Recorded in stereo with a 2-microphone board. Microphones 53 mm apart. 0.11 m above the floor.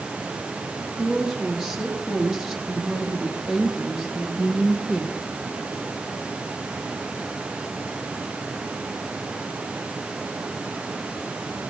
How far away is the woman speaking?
About 4.5 m.